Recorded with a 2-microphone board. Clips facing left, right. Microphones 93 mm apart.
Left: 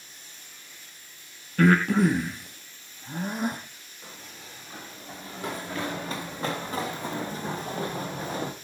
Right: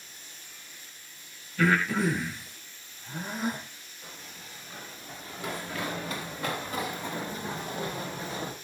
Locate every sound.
1.6 s breathing: 55° left (ahead or behind), 4 m
4.0 s running footsteps: 25° left (ahead or behind), 9.5 m; by 8.5 s 45° left (ahead or behind), 3 m